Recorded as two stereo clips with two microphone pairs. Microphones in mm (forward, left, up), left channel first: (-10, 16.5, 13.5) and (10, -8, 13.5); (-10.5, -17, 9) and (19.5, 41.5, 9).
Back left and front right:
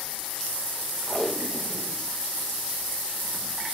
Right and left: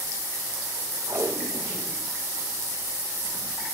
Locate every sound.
1.1 s tape being pulled: 40° left, 3 m